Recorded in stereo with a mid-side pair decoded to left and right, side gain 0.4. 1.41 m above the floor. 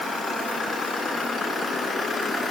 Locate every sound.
Only background noise.